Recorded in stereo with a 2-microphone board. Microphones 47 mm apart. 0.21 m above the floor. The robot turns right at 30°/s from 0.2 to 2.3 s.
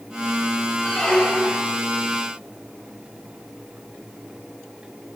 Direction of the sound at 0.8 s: 15° left (ahead or behind).